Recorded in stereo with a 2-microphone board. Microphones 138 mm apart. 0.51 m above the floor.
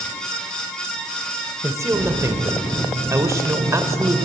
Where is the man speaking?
20° right (ahead or behind), 1.8 m.